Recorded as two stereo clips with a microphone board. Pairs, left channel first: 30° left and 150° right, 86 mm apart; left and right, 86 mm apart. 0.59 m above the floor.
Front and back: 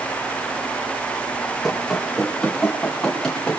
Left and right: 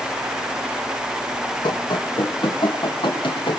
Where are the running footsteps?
120° left, 9 m; by 3.6 s 110° left, 9.5 m.